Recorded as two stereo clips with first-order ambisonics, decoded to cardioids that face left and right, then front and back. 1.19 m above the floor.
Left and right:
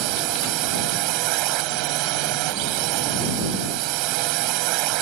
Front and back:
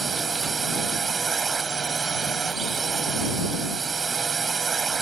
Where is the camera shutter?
I don't hear a camera shutter.